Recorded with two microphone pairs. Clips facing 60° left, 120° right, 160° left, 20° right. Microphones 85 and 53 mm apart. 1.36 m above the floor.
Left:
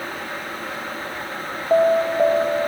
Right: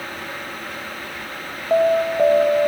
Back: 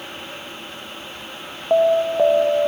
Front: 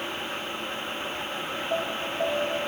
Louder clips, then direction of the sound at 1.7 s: Even, back 16 dB; 145° left.